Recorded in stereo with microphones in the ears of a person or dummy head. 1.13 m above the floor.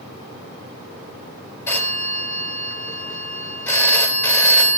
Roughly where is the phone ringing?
Centre.